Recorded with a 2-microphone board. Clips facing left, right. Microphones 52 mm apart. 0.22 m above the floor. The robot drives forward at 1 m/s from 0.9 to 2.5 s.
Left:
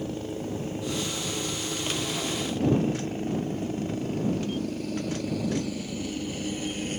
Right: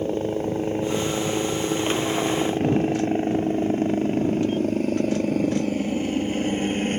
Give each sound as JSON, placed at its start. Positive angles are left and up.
{"t": 0.0, "sound": "a helicopter", "side_deg": -40}